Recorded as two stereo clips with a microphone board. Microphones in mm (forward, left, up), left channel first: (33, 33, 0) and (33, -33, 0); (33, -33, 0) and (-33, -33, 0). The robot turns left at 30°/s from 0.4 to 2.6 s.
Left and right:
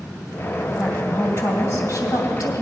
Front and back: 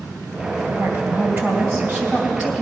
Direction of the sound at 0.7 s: 160° left.